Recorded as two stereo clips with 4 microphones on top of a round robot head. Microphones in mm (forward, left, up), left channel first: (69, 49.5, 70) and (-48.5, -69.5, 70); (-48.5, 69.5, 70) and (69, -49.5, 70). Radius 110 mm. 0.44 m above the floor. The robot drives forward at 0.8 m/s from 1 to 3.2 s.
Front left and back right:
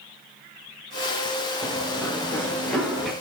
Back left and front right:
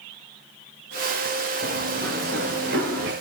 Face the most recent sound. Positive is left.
turn(degrees=-40)